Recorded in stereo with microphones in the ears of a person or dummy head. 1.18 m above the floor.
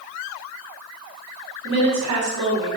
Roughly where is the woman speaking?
Right.